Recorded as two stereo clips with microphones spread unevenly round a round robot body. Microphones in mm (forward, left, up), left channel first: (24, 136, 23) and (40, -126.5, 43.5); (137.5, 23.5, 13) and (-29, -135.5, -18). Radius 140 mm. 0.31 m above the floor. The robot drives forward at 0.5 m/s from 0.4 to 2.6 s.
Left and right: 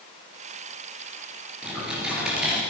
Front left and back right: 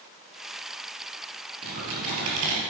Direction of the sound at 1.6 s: 175° right.